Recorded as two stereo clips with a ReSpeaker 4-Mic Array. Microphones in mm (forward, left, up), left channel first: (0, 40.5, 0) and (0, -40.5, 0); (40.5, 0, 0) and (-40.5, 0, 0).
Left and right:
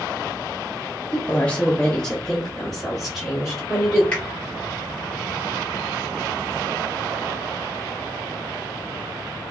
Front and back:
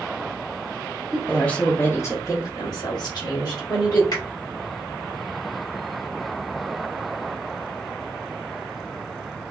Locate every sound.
1.1 s a woman speaking: 95° left, 0.8 m; by 4.0 s 5° right, 1.8 m
4.1 s a finger snap: 15° left, 1.5 m